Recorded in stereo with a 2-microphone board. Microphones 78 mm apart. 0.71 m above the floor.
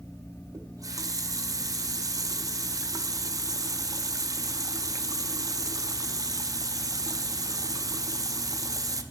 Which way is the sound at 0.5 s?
50° right (ahead or behind).